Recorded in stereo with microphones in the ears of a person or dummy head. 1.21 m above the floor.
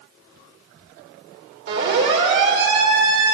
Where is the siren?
65° right (ahead or behind), 7 m; by 3.3 s 55° right (ahead or behind), 7 m.